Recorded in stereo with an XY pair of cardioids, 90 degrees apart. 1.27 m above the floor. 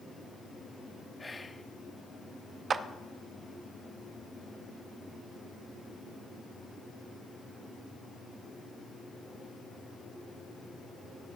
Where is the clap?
50° right, 0.6 m.